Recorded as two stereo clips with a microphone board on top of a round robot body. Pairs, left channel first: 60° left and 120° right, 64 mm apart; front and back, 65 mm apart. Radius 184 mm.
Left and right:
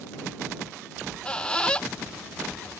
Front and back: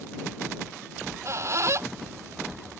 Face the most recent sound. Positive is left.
turn(degrees=135)